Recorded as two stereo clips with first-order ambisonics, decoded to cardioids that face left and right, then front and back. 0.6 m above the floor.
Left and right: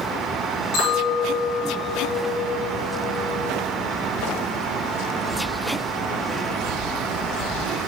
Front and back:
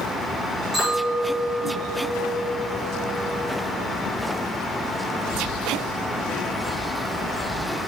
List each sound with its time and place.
0.7 s a clink: 85° left, 5 m